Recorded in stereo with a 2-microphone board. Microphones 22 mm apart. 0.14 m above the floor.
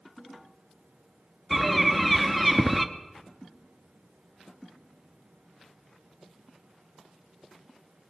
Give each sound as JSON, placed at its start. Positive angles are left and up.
{"t": 1.5, "sound": "a bird", "side_deg": 5, "distance_m": 0.6}